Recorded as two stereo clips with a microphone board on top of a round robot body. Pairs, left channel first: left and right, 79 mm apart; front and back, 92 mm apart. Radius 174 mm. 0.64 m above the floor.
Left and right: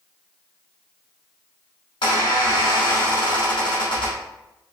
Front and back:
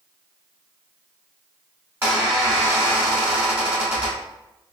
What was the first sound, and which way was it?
A squeak, 110° left.